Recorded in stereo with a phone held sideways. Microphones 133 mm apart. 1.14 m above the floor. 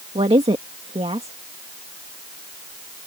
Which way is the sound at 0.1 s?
50° right (ahead or behind).